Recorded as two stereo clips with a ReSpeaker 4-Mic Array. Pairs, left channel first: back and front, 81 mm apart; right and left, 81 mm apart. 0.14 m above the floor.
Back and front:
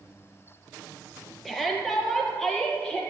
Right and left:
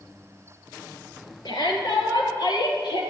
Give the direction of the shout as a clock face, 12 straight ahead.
3 o'clock.